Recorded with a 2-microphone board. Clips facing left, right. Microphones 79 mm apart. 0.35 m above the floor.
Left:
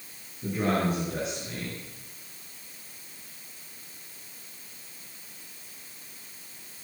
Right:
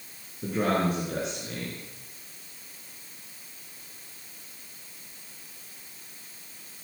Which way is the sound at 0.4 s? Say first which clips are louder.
Right 1 dB; 65° right (ahead or behind).